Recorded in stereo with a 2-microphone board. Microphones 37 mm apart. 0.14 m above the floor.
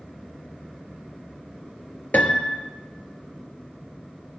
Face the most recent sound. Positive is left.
turn(degrees=60)  # may be behind; listen again after turning